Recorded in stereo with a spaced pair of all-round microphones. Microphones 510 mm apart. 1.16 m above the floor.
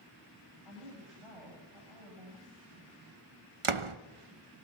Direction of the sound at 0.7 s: 85° right.